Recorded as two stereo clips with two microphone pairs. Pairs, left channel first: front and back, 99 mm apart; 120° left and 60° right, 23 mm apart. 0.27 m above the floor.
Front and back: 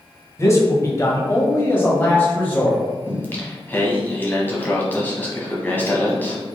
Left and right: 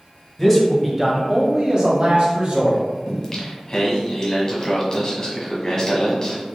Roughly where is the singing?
Left.